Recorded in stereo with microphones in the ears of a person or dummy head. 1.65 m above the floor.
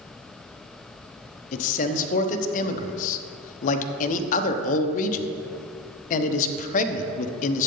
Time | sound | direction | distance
1.5 | a man speaking | 45° left (ahead or behind) | 0.9 m